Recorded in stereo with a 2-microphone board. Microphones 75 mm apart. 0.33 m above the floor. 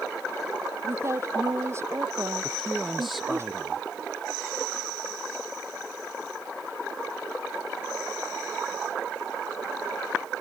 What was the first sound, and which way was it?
A woman speaking, 35° right (ahead or behind).